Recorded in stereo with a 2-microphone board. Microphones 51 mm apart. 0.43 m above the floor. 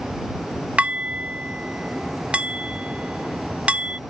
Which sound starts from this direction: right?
Dishes clattering, at 0.8 s.